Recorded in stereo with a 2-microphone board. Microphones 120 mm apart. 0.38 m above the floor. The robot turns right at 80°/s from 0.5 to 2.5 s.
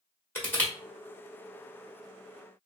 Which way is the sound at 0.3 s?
15° left (ahead or behind).